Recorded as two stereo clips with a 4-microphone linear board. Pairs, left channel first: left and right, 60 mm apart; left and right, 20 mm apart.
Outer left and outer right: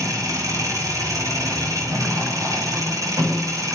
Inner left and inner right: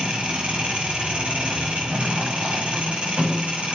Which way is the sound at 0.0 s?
65° right (ahead or behind).